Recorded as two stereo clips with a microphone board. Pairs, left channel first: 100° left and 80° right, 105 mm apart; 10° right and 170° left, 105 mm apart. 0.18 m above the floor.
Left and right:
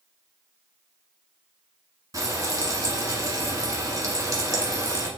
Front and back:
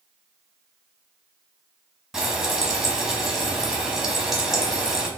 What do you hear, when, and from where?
2.1 s frying: 105° right, 1.1 m